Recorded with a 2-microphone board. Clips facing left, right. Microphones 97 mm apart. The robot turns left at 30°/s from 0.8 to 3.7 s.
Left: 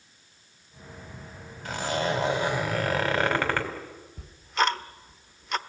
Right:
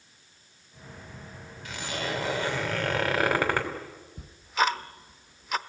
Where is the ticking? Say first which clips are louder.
Even; centre (ahead or behind), 0.8 m.